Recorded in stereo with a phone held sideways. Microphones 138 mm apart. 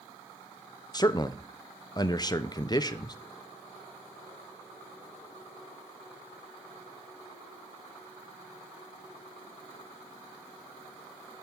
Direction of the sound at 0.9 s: 30° left (ahead or behind).